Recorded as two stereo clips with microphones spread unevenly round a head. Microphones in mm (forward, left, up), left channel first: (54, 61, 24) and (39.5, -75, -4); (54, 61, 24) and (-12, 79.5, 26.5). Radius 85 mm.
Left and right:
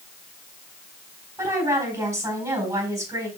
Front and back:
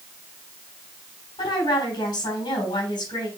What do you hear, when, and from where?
1.4 s a woman speaking: 30° right, 4.5 m